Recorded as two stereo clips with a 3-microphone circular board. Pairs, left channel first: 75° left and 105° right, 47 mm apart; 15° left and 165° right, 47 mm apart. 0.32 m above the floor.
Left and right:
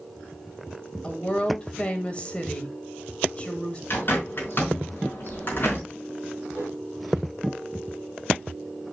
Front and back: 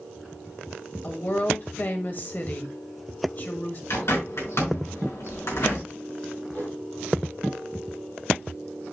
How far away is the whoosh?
About 3.5 m.